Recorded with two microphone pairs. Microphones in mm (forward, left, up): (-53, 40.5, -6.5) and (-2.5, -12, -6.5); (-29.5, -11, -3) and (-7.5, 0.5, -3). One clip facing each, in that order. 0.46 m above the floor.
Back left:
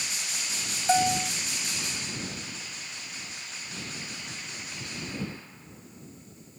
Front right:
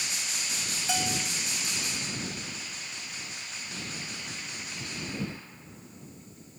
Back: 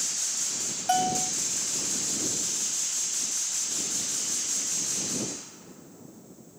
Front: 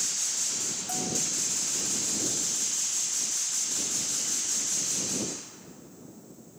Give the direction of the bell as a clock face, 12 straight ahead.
6 o'clock.